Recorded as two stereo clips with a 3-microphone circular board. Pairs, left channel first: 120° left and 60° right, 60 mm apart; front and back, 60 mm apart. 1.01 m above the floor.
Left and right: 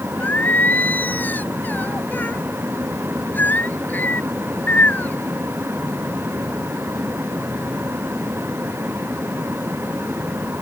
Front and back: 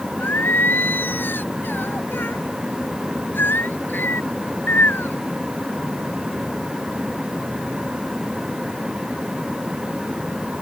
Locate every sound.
0.2 s singing: 60° left